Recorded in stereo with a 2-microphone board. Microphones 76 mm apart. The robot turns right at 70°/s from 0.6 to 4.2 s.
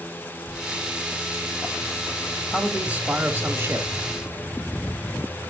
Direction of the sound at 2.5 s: 5° right (ahead or behind).